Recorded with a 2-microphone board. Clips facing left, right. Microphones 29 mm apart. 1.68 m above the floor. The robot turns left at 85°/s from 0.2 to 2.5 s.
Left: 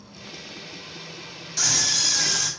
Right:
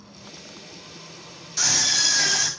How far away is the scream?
About 4.5 m.